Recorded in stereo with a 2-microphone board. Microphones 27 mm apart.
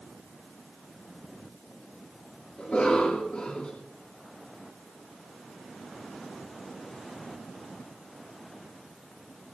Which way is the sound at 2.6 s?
55° left (ahead or behind).